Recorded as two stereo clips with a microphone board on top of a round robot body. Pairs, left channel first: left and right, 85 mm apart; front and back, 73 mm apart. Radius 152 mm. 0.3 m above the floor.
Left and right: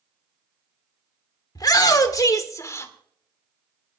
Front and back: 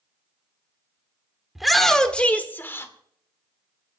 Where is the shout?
95° left, 2.0 m; by 2.9 s 45° left, 2 m.